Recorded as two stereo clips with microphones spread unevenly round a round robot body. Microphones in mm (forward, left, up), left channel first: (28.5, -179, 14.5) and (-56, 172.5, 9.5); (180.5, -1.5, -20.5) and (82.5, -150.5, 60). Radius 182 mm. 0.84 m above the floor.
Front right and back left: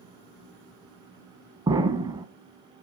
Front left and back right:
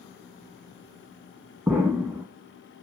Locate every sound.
1.7 s an explosion: straight behind, 1.0 m